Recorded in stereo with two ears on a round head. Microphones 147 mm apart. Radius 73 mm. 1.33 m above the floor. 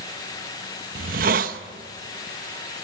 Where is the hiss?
60° right (ahead or behind), 0.8 m.